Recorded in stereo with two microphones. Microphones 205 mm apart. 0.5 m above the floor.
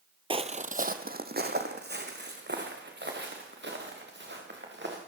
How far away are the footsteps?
About 0.7 m.